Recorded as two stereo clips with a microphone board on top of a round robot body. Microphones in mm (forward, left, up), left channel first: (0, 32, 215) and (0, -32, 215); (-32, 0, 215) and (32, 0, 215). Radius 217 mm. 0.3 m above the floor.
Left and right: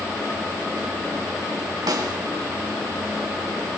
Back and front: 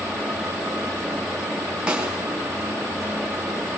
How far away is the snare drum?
About 5 m.